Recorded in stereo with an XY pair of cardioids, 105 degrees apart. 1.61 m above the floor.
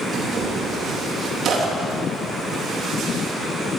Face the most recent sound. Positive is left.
turn(degrees=-60)